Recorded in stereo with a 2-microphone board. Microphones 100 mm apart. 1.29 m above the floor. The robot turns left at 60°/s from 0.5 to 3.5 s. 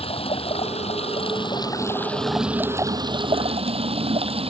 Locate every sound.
0.0 s running water: 110° left; by 4.5 s 70° right